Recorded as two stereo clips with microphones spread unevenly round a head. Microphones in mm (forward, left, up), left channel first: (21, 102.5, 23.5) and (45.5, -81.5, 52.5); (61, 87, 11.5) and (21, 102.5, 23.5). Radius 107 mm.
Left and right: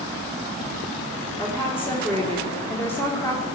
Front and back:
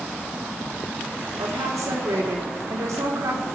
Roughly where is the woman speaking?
Behind.